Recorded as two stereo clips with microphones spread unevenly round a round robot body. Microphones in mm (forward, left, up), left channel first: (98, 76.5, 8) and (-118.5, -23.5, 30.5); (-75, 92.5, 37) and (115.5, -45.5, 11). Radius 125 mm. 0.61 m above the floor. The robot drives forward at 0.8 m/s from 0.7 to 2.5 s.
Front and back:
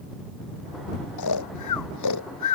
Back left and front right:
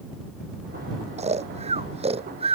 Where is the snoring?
30° left.